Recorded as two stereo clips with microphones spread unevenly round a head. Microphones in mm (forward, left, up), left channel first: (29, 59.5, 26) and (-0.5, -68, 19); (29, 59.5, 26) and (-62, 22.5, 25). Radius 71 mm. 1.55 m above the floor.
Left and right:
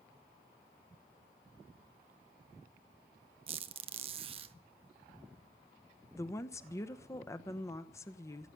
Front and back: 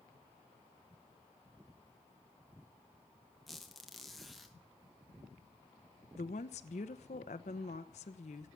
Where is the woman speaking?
10° left, 1.0 m.